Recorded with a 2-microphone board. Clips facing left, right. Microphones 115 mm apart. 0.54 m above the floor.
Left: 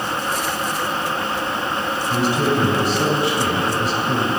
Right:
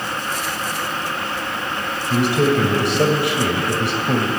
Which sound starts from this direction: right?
A man speaking, at 2.1 s.